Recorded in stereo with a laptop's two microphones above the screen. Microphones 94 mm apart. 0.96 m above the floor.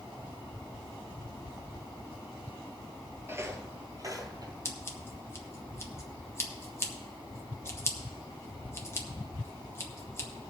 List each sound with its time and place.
3.3 s footsteps: 25° right (ahead or behind), 1.2 m; by 4.5 s 40° right (ahead or behind), 1.7 m
4.7 s scissors: 25° left (ahead or behind), 1.1 m